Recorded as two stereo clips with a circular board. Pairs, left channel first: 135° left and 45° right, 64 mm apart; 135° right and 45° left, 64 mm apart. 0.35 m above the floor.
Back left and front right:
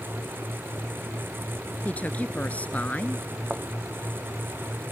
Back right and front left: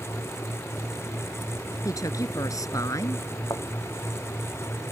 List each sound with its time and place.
1.9 s a woman speaking: 160° right
3.5 s a thud: 120° right